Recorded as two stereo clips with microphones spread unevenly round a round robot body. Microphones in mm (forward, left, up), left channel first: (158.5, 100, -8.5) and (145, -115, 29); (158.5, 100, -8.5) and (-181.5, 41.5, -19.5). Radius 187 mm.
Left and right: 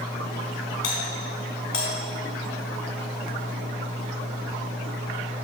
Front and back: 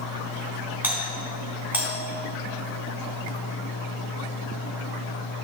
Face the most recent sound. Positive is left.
turn(degrees=105)